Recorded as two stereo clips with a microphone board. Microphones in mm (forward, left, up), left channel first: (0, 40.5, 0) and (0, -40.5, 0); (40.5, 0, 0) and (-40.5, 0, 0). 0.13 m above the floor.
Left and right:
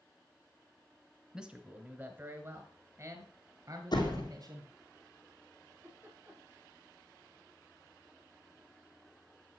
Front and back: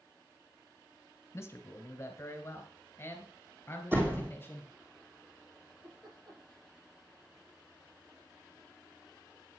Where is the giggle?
150° right, 6 m.